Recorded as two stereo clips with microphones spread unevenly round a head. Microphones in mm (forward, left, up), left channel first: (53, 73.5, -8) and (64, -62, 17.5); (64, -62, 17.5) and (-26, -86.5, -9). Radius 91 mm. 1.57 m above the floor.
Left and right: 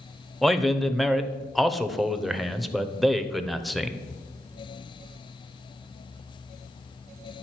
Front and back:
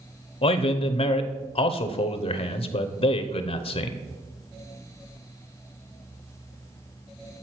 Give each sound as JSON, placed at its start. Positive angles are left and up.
{"t": 0.4, "sound": "a man speaking", "azimuth_deg": 5, "distance_m": 0.7}